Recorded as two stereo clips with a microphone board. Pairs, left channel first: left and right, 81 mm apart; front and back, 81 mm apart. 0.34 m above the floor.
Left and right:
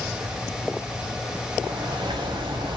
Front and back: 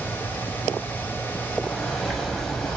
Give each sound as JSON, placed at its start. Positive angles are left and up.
{"t": 1.6, "sound": "a bird", "azimuth_deg": -90, "distance_m": 0.7}